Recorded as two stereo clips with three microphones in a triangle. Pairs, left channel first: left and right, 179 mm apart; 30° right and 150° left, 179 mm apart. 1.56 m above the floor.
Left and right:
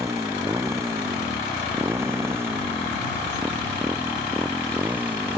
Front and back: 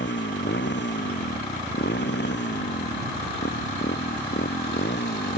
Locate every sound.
0.0 s a motorcycle: 15° right; by 5.4 s 10° right